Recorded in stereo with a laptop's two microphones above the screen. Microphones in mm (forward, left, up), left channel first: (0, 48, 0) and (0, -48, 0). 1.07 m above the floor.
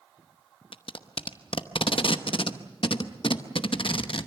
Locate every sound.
0.7 s tape being pulled: 65° left (ahead or behind), 0.9 m